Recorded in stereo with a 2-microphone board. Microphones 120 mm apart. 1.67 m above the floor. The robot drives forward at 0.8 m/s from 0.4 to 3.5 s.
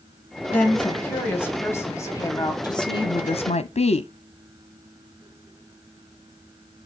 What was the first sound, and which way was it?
A woman speaking, 10° left (ahead or behind).